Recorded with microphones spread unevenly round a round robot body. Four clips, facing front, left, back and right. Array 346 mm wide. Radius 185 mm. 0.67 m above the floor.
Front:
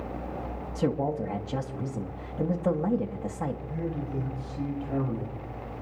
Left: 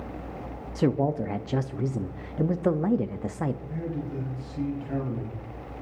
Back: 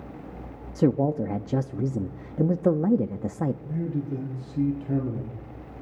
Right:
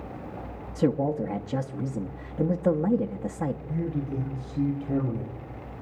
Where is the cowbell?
No cowbell in this recording.